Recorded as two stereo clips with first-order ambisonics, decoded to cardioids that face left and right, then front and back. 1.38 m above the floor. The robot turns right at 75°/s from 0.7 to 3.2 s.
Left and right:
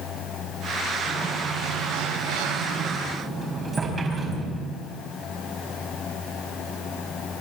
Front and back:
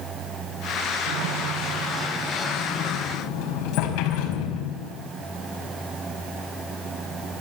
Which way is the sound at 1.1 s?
Straight behind.